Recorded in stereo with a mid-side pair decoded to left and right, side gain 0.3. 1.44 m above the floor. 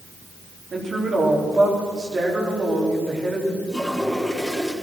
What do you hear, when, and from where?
0.7 s a woman speaking: 60° right, 4 m
3.7 s a toilet flushing: 5° left, 4 m